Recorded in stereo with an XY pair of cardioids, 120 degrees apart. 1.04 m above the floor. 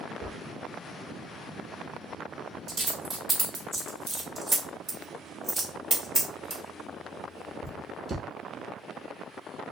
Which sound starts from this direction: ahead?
A dropped coin, at 0.2 s.